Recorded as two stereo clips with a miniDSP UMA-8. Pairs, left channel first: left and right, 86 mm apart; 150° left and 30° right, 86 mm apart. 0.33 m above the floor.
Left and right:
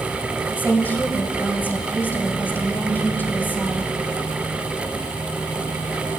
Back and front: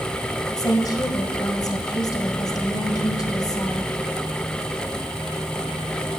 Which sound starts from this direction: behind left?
A woman speaking, at 0.6 s.